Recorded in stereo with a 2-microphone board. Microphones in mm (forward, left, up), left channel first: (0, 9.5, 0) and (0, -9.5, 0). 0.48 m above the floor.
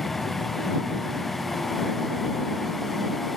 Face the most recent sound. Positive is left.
turn(degrees=30)  # may be behind; listen again after turning